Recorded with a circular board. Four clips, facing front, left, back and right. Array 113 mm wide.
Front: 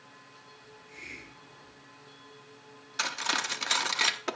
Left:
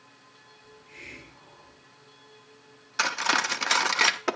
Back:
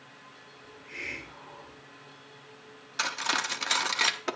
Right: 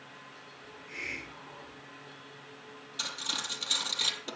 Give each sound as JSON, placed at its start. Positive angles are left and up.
{"t": 0.6, "sound": "a hiss", "azimuth_deg": -155, "distance_m": 2.5}
{"t": 3.0, "sound": "cutlery clinking", "azimuth_deg": 90, "distance_m": 0.6}